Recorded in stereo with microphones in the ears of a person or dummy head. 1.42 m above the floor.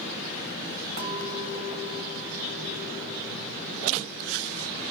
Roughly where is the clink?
Right.